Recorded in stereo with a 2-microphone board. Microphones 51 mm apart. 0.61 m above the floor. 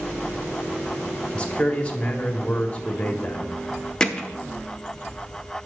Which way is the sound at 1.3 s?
20° left (ahead or behind).